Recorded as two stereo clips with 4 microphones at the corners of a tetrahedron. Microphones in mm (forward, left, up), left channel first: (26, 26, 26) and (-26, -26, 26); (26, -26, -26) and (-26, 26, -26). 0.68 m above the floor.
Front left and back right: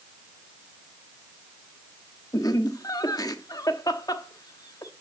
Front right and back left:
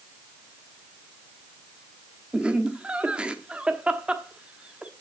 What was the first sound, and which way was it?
Laughter, 60° left.